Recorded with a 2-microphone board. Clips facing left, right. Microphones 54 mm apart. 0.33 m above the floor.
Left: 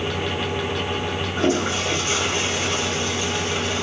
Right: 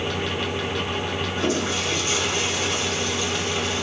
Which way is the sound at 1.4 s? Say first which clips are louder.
Left 4 dB; 35° left (ahead or behind).